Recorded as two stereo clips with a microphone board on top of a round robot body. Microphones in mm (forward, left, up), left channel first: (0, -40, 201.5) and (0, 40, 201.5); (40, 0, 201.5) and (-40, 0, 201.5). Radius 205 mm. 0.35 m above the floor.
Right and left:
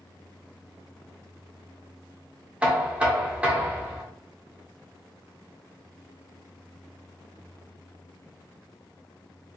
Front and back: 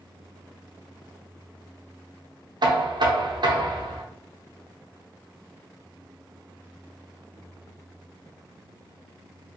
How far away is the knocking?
About 0.8 m.